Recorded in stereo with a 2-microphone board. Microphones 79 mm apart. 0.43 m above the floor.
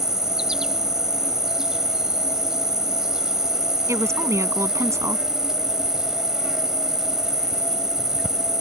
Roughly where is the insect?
Centre.